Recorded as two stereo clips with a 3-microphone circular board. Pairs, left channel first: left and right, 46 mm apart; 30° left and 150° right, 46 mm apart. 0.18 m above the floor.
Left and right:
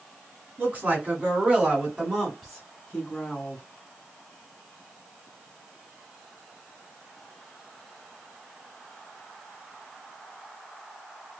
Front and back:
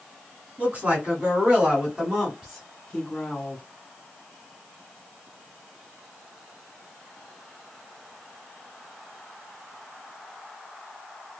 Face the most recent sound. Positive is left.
turn(degrees=85)